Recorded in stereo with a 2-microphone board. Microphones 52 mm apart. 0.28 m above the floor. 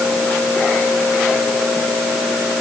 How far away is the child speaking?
No child speaking in this recording.